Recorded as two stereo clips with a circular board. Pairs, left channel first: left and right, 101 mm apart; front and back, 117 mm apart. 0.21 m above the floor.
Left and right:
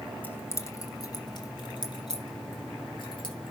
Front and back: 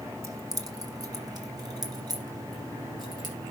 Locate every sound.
0.2 s keys jangling: 145° left, 0.8 m; by 3.5 s 125° left, 3 m